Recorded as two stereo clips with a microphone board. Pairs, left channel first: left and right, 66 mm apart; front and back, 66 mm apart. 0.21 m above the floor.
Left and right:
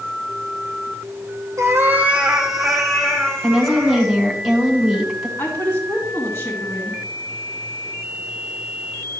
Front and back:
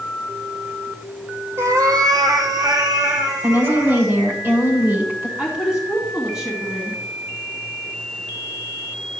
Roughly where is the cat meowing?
Behind right.